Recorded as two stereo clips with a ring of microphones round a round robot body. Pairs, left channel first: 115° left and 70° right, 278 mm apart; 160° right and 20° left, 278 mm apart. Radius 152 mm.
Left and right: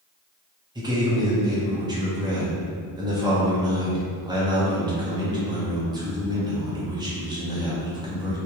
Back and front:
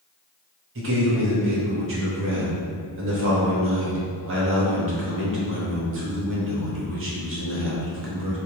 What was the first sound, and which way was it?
A man speaking, 5° left.